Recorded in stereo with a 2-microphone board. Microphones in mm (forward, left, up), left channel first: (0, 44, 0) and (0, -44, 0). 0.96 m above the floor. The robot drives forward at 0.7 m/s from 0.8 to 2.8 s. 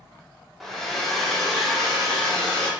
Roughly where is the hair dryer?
Centre.